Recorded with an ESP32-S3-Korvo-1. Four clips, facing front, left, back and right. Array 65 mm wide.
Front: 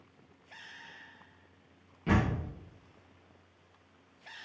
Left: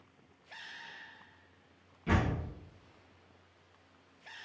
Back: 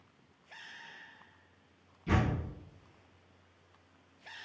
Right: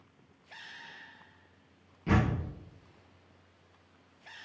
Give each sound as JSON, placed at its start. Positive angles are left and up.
{"t": 2.1, "sound": "a door slam", "azimuth_deg": -15, "distance_m": 4.5}